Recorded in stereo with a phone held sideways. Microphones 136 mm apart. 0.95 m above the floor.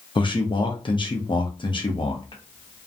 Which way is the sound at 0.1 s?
35° left (ahead or behind).